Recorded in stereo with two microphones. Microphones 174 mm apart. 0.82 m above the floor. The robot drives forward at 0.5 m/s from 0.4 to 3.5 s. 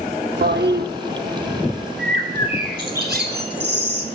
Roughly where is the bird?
Right.